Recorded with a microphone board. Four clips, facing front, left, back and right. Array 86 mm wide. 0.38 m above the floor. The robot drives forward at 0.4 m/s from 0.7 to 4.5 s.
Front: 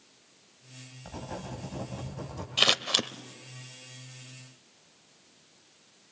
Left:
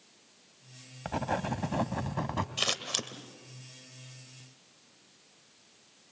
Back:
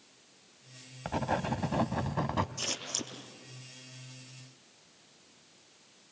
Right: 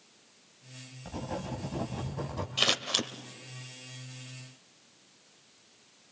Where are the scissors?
10° right, 1.4 m; by 3.1 s 15° right, 1.3 m.